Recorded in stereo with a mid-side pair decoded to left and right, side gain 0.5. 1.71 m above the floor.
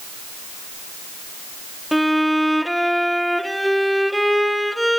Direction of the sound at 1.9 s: Straight ahead.